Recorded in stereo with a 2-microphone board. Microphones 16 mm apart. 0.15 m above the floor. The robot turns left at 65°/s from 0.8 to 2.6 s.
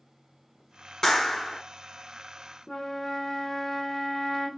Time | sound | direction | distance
1.0 | a clap | 80° left | 1.1 m
2.7 | a flute | 40° left (ahead or behind) | 0.9 m